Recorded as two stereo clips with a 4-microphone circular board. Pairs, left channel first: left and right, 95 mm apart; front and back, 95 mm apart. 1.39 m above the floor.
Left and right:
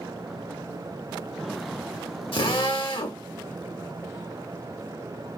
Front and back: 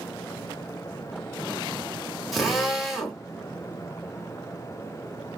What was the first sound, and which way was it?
A drill, 90° left.